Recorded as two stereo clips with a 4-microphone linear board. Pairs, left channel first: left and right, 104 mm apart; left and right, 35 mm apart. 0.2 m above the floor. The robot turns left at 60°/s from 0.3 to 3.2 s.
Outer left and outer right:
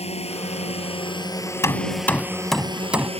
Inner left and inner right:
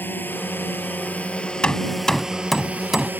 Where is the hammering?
25° left (ahead or behind); by 3.1 s 15° right (ahead or behind).